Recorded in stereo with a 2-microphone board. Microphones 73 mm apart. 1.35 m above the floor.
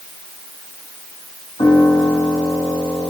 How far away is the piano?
About 3.5 m.